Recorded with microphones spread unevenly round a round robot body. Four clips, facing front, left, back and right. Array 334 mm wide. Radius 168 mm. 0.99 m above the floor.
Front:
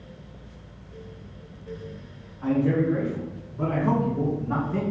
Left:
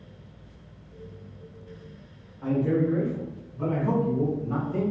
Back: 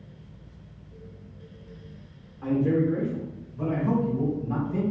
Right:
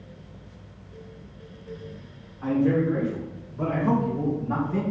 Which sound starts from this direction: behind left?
A man speaking, at 2.4 s.